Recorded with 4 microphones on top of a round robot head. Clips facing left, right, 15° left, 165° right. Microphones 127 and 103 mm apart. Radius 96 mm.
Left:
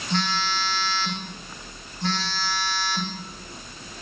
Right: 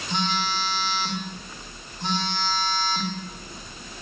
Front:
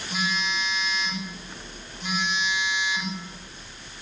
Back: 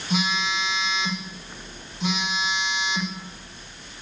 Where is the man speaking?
I don't hear a man speaking.